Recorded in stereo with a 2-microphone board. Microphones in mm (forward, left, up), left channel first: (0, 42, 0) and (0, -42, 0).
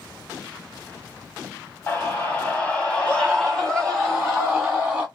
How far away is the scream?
About 1.4 m.